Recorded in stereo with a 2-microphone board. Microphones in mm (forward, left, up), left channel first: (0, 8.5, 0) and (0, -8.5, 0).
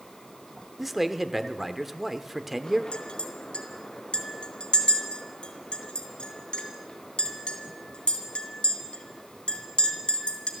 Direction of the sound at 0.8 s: 15° right (ahead or behind).